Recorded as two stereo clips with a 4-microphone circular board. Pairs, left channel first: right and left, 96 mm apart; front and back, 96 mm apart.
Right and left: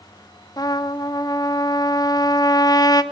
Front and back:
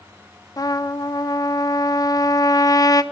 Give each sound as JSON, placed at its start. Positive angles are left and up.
{"t": 0.6, "sound": "a trumpet", "azimuth_deg": -45, "distance_m": 1.2}